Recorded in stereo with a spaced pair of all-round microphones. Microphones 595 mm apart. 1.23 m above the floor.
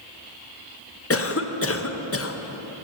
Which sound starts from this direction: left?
A cough, at 1.1 s.